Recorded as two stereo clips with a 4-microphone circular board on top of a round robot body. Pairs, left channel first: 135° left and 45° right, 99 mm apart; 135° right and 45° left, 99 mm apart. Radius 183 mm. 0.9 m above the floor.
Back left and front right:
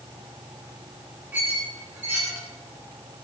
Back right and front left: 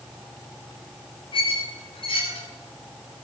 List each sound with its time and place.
1.3 s a squeak: 115° right, 0.8 m